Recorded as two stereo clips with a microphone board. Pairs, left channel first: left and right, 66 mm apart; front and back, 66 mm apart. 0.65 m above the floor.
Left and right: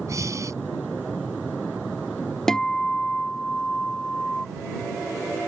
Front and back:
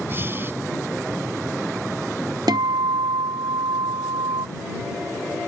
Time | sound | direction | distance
0.1 | breathing | 125° right | ?
2.5 | a guitar | 170° left | ?